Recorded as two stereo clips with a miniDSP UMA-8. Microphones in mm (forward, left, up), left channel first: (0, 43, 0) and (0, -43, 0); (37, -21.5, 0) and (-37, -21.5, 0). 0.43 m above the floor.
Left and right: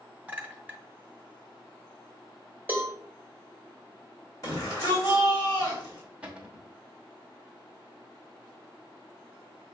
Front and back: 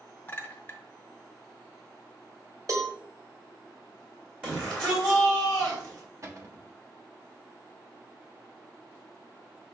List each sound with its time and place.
0.3 s a clink: 35° right, 0.8 m
2.7 s a cowbell: 155° right, 1.0 m
4.4 s a shout: 115° left, 1.9 m
6.2 s a cupboard door: 160° right, 0.8 m